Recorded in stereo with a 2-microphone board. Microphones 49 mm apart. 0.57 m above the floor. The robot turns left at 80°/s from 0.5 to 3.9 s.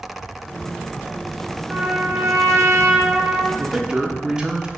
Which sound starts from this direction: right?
A man speaking, at 3.6 s.